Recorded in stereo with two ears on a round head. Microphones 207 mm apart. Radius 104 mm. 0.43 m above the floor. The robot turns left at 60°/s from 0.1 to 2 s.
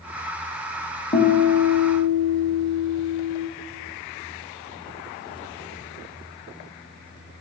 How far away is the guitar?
About 0.7 m.